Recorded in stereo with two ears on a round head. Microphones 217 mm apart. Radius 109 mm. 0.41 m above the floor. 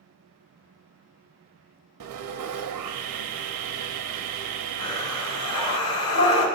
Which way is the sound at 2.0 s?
80° right.